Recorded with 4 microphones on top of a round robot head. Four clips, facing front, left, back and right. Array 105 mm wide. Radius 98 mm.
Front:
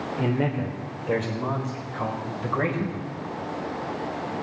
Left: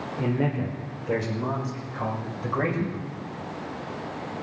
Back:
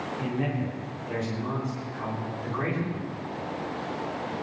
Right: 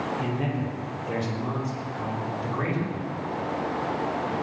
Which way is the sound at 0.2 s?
30° left.